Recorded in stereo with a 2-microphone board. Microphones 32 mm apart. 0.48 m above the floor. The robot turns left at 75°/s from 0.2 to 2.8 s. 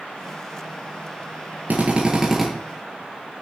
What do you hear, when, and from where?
1.7 s a drill: 125° right, 4.5 m; by 2.5 s 175° left, 4.5 m